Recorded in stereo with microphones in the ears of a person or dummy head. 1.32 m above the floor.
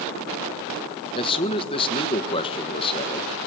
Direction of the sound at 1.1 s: 25° left (ahead or behind).